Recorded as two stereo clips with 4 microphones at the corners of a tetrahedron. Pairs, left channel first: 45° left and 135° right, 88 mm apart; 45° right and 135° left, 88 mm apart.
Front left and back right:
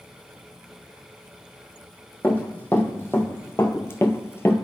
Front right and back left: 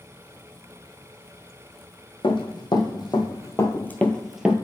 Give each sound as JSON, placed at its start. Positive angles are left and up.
{"t": 2.2, "sound": "running footsteps", "azimuth_deg": -25, "distance_m": 2.0}